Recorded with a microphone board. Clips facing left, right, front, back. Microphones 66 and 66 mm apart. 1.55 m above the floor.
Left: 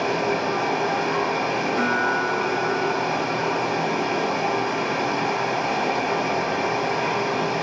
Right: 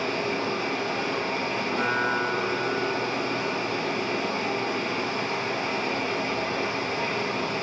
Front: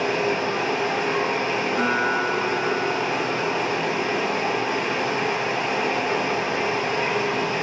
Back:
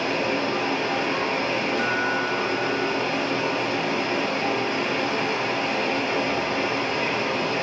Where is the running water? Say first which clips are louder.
Left 5 dB, front 2 dB; 75° left, 0.8 m.